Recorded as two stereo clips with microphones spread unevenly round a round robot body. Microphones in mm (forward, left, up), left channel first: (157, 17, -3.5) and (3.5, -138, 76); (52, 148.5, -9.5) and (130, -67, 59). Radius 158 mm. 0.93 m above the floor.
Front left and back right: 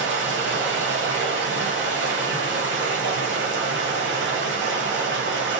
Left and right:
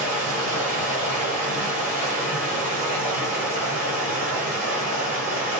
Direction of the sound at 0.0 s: 90° right.